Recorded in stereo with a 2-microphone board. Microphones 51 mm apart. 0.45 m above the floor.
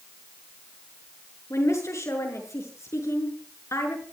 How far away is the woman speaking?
About 6.5 m.